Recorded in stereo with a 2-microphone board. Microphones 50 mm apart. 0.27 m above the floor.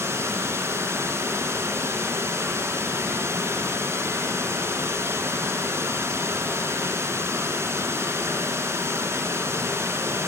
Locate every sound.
0.0 s running water: 55° right (ahead or behind), 1.4 m